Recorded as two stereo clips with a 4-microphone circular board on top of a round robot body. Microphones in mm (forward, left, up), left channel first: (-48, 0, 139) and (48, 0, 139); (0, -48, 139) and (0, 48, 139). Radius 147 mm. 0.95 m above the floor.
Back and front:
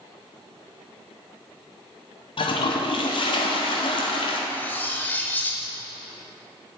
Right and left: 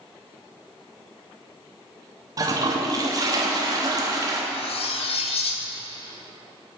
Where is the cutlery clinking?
105° right, 0.8 m.